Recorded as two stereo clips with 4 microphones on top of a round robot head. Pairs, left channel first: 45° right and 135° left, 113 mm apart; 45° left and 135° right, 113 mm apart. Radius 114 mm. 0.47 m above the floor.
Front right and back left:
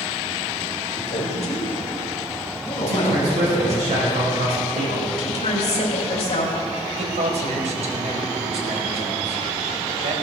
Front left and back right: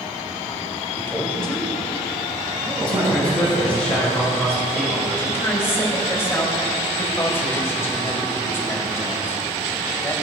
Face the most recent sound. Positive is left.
turn(degrees=115)